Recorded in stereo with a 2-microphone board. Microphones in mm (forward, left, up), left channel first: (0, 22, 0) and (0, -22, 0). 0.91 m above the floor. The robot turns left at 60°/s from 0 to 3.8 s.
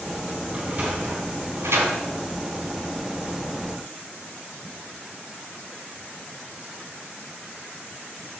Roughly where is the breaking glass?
I don't hear breaking glass.